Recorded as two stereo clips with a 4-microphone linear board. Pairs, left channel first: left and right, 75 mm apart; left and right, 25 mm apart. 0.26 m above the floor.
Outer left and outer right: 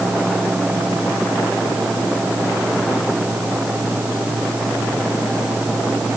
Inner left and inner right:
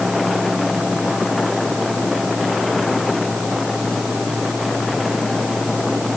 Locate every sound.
Only background noise.